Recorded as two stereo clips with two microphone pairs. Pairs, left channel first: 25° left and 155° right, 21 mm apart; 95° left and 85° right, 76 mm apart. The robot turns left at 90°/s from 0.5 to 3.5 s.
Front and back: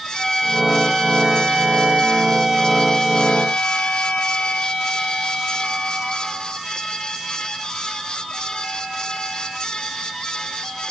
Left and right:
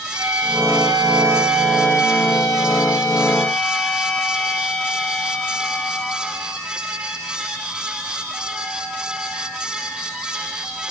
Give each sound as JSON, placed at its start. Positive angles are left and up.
{"t": 0.1, "sound": "a violin", "azimuth_deg": -65, "distance_m": 4.5}